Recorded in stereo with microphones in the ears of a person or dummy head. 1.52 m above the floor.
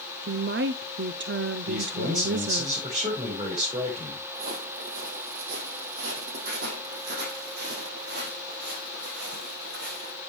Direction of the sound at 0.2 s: 60° right (ahead or behind).